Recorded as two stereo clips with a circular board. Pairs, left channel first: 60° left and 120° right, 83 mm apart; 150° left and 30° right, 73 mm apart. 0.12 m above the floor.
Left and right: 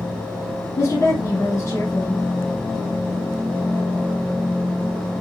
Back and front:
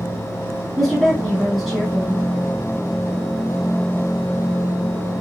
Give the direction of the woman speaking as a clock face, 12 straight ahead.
10 o'clock.